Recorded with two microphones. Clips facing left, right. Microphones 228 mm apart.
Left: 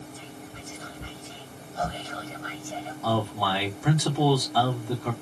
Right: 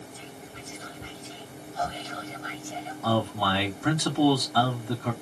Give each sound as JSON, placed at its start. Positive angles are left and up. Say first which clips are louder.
{"t": 0.1, "sound": "whispering", "louder": "left 1 dB", "side_deg": 60, "distance_m": 1.3}
{"t": 3.0, "sound": "a man speaking", "louder": "right 1 dB", "side_deg": 0, "distance_m": 2.5}